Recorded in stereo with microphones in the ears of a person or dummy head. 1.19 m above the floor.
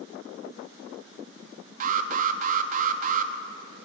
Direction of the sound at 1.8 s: 40° right (ahead or behind).